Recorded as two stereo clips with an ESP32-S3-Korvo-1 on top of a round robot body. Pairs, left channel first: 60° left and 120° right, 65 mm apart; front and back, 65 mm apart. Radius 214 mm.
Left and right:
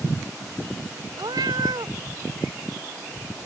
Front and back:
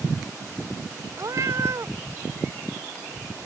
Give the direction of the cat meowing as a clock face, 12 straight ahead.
5 o'clock.